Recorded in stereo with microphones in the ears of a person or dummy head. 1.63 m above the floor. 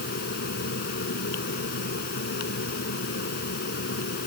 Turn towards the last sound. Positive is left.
turn(degrees=60)  # may be behind; listen again after turning